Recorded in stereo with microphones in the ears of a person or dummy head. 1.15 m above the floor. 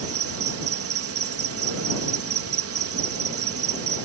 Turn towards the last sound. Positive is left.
turn(degrees=-65)  # may be behind; listen again after turning